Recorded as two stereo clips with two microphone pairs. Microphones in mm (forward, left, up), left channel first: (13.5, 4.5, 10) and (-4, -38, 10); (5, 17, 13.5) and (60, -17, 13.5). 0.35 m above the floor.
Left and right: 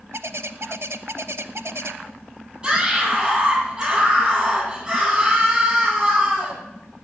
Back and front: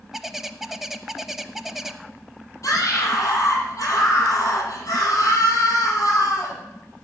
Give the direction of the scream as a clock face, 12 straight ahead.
6 o'clock.